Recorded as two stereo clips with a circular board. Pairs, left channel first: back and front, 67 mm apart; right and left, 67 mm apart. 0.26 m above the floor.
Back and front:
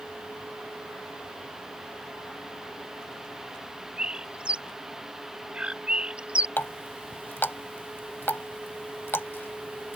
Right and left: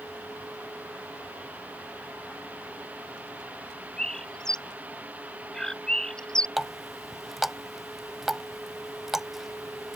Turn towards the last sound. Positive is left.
turn(degrees=175)